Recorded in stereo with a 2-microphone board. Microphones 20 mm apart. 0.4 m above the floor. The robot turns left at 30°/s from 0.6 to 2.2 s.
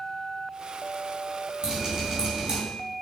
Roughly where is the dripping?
Right.